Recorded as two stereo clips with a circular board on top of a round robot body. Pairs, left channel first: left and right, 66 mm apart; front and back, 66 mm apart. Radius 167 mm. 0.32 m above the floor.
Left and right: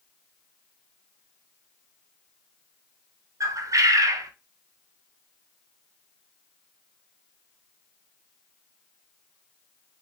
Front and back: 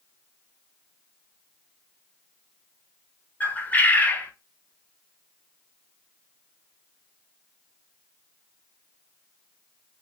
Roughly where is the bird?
Ahead right.